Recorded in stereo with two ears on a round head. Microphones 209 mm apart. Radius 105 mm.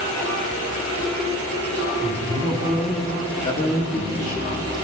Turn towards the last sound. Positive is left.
turn(degrees=40)  # may be behind; listen again after turning